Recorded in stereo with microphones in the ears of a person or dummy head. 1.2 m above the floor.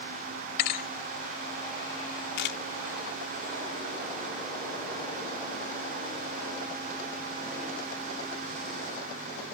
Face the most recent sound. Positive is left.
turn(degrees=60)  # may be behind; listen again after turning